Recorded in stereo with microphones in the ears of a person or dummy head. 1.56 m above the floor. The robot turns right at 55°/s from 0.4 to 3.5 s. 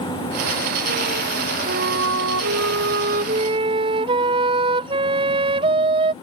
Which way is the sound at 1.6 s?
130° right.